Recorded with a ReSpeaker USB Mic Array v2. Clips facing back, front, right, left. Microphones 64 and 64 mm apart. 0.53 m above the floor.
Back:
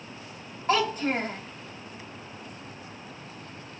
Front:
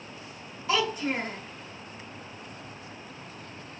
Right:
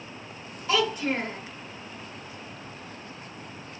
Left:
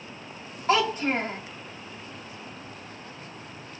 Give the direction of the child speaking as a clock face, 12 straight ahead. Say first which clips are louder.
Back 2 dB, left 2 dB; 7 o'clock.